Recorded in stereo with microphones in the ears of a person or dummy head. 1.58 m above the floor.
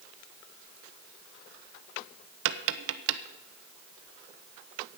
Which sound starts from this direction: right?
Tapping, at 2.5 s.